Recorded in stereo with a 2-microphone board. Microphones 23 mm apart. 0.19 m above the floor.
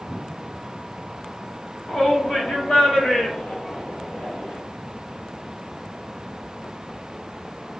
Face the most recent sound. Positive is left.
turn(degrees=55)  # may be behind; listen again after turning